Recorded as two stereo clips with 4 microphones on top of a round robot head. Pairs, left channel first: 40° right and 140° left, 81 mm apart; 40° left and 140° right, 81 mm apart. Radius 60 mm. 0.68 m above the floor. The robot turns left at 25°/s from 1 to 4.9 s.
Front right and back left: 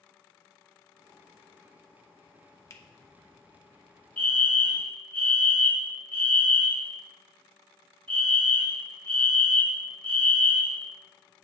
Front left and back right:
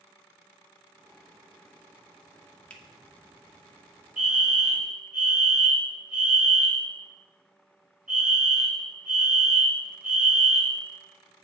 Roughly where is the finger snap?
Ahead right.